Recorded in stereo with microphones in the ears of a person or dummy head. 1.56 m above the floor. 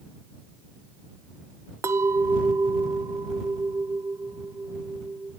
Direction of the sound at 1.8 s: 15° right (ahead or behind).